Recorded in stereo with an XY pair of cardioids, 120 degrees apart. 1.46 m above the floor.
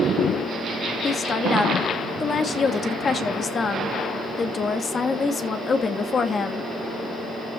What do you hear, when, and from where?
1.0 s a woman speaking: 35° left, 1.9 m